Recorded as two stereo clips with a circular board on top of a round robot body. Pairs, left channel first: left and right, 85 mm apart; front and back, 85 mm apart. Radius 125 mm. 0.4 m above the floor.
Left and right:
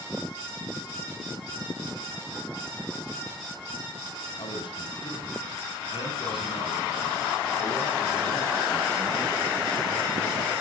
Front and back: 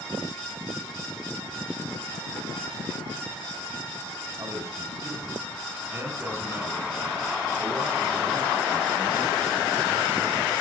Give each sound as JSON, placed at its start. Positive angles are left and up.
{"t": 4.4, "sound": "a man speaking", "azimuth_deg": 125, "distance_m": 6.0}